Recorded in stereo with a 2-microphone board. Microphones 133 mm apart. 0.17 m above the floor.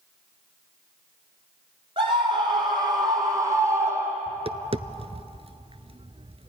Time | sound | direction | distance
2.0 | a scream | 40° right (ahead or behind) | 6 m
4.3 | tapping | 45° right (ahead or behind) | 0.6 m